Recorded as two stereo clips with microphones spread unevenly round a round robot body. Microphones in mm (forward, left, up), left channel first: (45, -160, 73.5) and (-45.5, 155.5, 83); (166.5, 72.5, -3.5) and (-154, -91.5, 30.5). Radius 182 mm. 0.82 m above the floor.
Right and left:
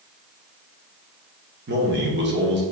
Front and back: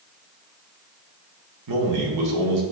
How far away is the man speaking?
About 2.0 m.